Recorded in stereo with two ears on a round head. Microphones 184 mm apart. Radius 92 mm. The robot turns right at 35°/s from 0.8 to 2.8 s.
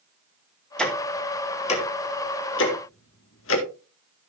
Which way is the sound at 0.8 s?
5° left (ahead or behind).